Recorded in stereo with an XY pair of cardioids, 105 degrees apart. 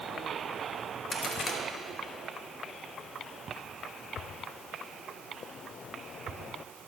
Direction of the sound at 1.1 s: 40° left.